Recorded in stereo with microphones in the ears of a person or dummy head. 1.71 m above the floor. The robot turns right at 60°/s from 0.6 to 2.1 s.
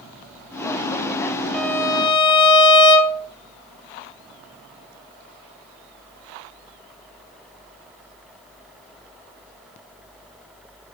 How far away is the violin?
About 0.7 m.